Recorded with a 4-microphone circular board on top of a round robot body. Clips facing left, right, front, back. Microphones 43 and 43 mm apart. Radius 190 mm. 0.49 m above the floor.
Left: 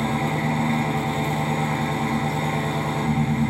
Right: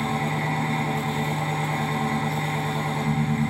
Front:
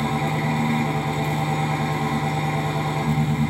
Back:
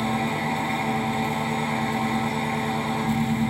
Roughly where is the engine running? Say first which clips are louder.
Left 2 dB, front 1 dB; left.